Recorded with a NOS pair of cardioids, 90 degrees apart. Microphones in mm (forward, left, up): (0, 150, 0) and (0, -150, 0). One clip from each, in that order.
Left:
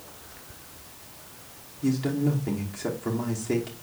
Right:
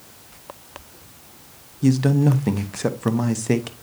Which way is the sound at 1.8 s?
55° right.